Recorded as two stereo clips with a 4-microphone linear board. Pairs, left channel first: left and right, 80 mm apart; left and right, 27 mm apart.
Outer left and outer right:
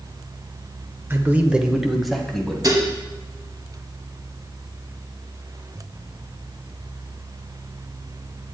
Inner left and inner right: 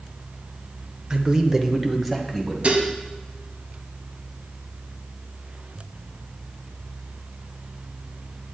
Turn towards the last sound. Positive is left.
turn(degrees=-45)  # may be behind; listen again after turning